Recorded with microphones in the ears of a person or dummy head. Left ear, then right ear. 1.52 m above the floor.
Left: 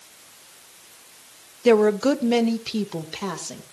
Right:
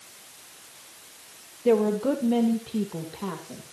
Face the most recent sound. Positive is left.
turn(degrees=80)